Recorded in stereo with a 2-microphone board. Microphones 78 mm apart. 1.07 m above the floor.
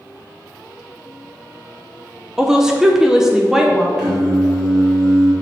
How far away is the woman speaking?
About 0.6 m.